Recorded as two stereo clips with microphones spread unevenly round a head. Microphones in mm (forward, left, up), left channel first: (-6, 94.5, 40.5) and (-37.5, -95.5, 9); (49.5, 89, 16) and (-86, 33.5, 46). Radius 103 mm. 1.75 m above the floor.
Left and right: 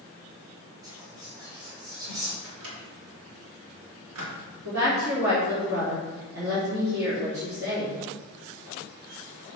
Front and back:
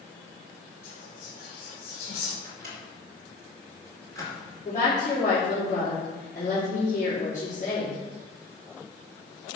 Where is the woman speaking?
55° right, 3.5 m.